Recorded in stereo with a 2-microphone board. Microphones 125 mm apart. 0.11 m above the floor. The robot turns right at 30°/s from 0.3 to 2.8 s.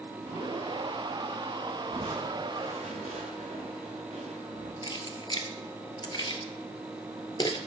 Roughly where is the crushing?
Right.